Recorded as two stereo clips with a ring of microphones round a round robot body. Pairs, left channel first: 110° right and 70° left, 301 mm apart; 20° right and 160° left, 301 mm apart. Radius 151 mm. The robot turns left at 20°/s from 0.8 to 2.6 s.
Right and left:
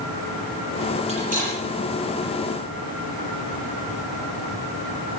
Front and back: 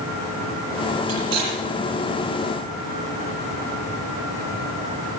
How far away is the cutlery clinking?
About 7.5 m.